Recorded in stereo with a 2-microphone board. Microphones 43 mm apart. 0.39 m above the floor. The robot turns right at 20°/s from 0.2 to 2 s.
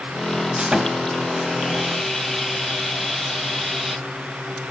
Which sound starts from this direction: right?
Sawing, at 0.6 s.